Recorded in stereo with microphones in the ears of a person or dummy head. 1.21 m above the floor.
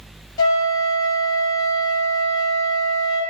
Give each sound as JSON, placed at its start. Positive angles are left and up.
{"t": 0.4, "sound": "a flute", "side_deg": 25, "distance_m": 0.6}